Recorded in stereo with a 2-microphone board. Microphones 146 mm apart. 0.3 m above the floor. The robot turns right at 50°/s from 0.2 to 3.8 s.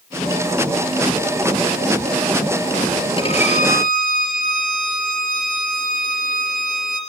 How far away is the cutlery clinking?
No cutlery clinking in this recording.